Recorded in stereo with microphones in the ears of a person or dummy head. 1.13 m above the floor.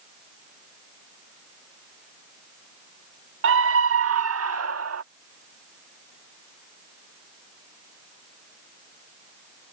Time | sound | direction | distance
3.4 | a scream | 60° right (ahead or behind) | ?